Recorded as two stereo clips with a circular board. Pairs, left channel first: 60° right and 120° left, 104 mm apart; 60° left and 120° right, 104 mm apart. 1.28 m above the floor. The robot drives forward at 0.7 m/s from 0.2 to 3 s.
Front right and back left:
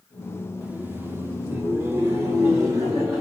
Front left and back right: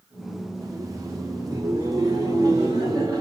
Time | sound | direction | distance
0.6 | laughter | 170° right | 0.8 m